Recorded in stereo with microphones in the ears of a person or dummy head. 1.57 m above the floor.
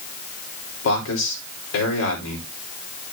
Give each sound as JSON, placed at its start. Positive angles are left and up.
{"t": 0.8, "sound": "a man speaking", "side_deg": 75, "distance_m": 4.5}